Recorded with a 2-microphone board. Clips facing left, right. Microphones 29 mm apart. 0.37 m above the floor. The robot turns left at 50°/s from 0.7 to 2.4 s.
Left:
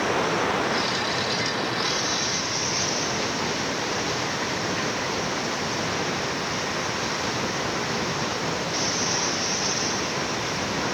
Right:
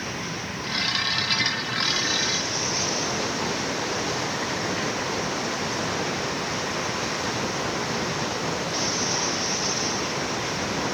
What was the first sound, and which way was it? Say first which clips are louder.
Running water: left 8 dB; 100° left.